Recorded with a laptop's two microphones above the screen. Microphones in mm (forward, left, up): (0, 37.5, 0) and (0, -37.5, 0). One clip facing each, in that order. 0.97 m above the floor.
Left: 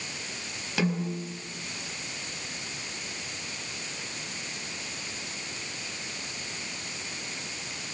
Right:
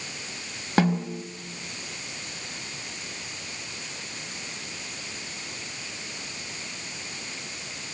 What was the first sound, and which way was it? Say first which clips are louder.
A snare drum: right 5 dB; 50° right (ahead or behind).